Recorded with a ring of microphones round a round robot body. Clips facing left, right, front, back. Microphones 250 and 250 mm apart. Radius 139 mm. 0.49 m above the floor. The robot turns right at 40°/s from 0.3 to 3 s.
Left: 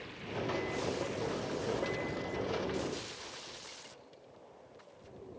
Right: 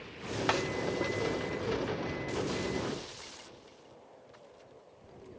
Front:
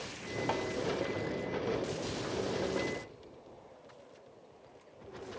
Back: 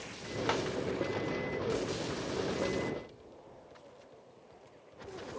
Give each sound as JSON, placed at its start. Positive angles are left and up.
{"t": 0.5, "sound": "a snare drum", "azimuth_deg": -110, "distance_m": 0.8}